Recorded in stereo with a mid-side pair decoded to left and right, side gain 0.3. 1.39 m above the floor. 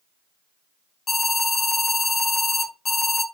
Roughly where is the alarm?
Ahead left.